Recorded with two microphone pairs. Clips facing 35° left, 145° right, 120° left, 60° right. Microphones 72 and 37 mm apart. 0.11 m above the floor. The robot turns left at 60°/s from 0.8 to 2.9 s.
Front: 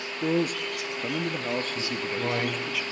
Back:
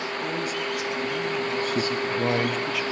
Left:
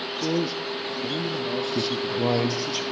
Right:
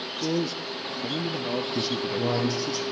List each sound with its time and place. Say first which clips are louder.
0.2 s a man speaking: front 6 dB, left 1 dB; 40° left, 1.7 m; by 2.8 s 80° right, 1.7 m
1.8 s a man speaking: back 5 dB, left 2 dB; 175° right, 2.5 m; by 2.8 s 120° left, 2.5 m